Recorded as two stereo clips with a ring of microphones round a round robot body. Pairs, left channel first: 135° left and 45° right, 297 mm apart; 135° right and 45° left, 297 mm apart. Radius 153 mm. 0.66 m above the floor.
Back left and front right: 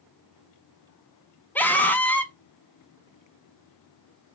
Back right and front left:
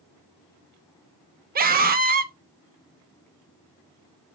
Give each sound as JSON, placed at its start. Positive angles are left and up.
{"t": 1.6, "sound": "a scream", "azimuth_deg": 55, "distance_m": 0.9}